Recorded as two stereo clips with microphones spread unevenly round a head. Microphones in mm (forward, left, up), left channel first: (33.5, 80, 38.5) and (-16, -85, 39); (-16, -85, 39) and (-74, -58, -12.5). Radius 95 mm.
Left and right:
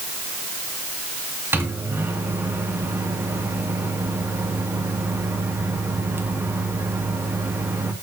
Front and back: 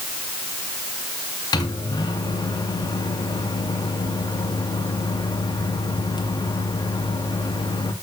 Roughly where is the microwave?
Ahead right.